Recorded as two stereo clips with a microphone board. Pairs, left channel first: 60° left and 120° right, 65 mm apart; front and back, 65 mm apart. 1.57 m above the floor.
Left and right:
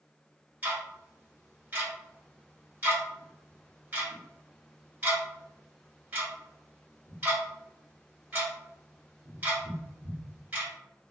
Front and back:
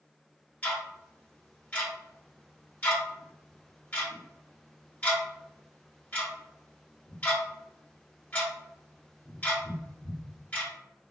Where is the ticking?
65° right, 2 m.